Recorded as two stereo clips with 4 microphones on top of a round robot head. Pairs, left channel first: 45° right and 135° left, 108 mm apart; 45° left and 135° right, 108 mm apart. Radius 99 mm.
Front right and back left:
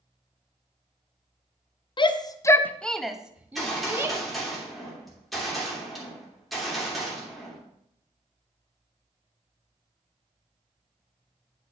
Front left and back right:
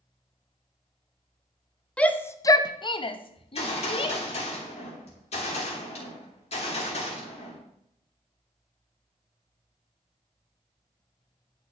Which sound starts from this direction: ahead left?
A gunshot, at 3.4 s.